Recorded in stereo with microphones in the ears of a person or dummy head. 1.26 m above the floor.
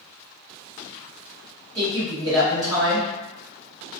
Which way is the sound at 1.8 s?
20° right (ahead or behind).